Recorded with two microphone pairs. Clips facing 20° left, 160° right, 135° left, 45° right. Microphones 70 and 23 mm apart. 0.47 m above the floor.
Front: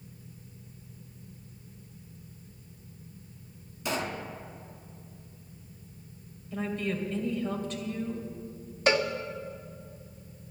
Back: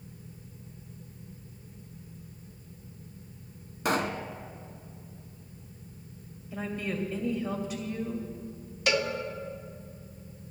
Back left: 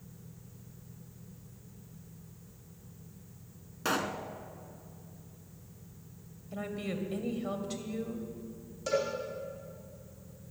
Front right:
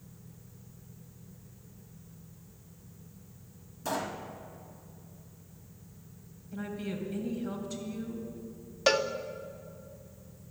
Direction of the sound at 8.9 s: 35° right.